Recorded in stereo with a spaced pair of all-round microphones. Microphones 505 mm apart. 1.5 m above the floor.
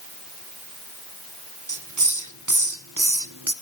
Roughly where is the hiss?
Right.